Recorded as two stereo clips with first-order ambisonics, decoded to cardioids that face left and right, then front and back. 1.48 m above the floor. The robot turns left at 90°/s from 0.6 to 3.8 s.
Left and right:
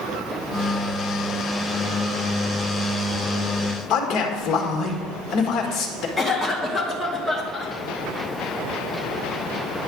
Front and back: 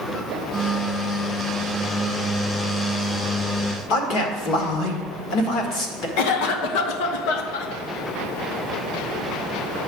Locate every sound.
3.9 s a man speaking: 40° left, 1.6 m
6.2 s a cough: 5° left, 1.1 m